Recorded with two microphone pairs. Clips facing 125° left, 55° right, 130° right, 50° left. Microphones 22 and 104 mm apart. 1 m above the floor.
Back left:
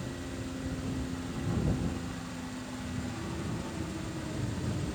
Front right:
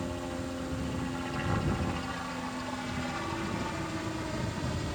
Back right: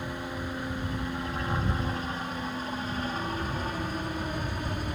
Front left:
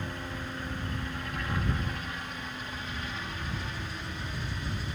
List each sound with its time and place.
0.0 s a helicopter: 60° right; by 5.0 s 100° right